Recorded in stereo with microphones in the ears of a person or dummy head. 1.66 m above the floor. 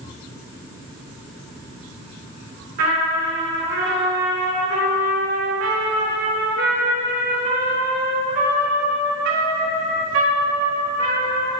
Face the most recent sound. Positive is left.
turn(degrees=-60)  # may be behind; listen again after turning